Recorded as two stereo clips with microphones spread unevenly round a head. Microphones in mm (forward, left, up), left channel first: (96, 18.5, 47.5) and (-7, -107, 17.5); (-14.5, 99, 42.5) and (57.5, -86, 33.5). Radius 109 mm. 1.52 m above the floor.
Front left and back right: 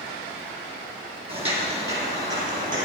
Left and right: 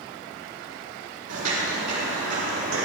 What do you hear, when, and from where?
1.3 s footsteps: 75° right, 3.5 m; by 2.9 s 95° right, 4 m